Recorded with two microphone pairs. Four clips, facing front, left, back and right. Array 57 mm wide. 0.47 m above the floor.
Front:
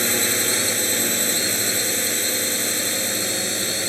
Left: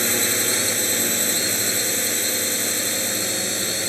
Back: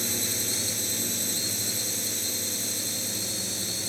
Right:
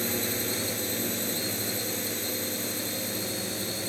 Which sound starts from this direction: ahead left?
A drone, at 0.0 s.